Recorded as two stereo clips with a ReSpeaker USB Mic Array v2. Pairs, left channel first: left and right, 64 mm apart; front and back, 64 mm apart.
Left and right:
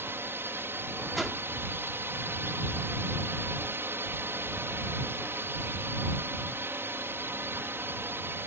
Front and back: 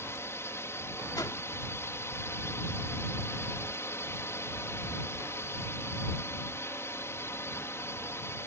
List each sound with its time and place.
0.0 s a drone: 40° right
1.1 s a whoosh: 5° left